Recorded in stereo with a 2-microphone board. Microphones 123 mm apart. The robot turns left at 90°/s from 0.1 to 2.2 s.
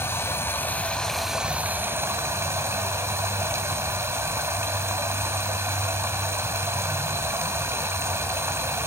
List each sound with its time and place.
0.0 s running water: 20° left (ahead or behind), 1.1 m; by 8.9 s 20° right (ahead or behind), 1.1 m